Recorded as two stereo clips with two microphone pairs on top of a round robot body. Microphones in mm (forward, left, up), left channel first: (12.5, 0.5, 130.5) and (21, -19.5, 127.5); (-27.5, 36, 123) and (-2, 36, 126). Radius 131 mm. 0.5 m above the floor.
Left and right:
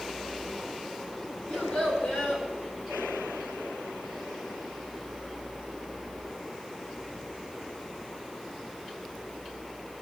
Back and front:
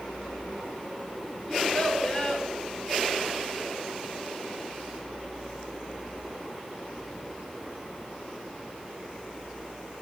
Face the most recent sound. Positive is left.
turn(degrees=115)